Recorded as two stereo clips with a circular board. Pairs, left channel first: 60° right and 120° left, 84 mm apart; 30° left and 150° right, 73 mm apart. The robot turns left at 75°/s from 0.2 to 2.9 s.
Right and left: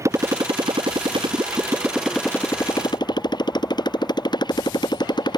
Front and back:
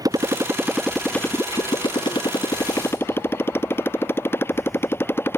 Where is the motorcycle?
175° left; by 5.4 s 30° right.